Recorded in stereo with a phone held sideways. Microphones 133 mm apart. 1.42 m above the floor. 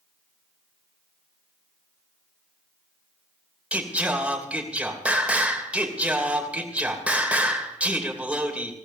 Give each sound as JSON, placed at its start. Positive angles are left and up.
{"t": 3.7, "sound": "singing", "side_deg": -10, "distance_m": 2.5}